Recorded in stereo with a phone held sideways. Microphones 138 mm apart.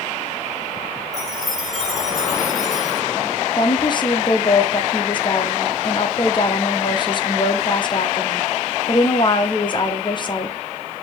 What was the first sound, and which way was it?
A chime, centre (ahead or behind).